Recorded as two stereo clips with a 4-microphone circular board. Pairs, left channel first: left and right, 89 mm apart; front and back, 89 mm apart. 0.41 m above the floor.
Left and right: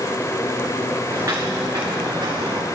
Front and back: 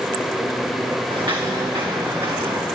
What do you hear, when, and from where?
1.1 s footsteps: 150° right, 2.5 m; by 2.6 s 130° right, 3 m